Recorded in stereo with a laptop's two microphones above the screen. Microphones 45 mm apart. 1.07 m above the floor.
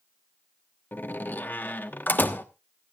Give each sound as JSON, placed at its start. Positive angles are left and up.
{"t": 0.9, "sound": "a door slam", "side_deg": 45, "distance_m": 1.2}